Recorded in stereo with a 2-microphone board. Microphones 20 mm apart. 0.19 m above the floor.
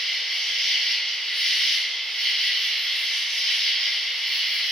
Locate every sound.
0.0 s an insect: 65° left (ahead or behind), 1.1 m